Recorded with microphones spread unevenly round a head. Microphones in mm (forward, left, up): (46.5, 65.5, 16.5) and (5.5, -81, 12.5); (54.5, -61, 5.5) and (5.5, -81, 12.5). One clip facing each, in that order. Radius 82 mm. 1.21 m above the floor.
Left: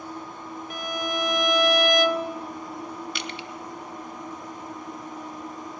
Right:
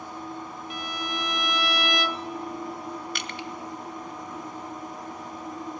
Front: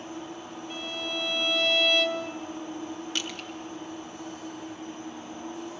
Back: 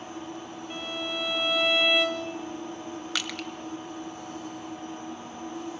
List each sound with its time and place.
0.7 s a violin: 115° left, 0.7 m
3.1 s crushing: 160° right, 0.9 m